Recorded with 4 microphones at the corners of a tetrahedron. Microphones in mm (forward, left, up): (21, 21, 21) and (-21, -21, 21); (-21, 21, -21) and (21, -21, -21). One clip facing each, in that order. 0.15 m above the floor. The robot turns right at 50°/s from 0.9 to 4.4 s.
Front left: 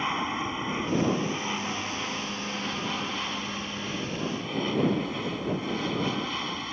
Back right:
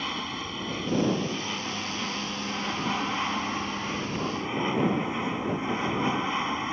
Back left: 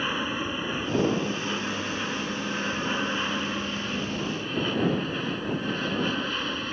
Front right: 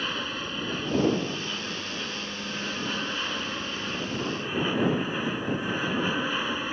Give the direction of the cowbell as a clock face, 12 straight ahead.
No cowbell in this recording.